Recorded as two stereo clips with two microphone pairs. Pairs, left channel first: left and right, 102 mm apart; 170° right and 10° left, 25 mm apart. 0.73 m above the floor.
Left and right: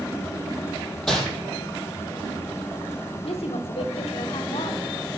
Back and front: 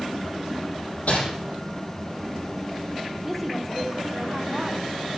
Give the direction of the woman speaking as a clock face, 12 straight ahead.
9 o'clock.